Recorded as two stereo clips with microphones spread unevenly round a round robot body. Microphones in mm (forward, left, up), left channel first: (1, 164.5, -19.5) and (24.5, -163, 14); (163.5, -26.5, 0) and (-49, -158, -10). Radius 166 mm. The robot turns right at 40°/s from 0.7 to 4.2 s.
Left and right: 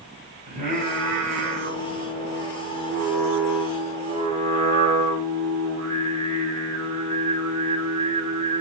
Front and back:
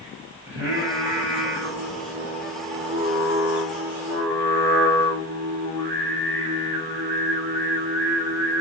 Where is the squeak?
I don't hear a squeak.